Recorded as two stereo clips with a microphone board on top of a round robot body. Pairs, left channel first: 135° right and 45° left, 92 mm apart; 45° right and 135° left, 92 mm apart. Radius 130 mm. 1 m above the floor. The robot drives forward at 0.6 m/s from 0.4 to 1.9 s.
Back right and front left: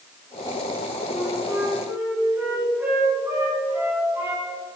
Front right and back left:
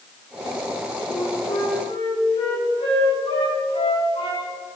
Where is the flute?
20° right, 4.5 m; by 4.5 s 25° right, 4 m.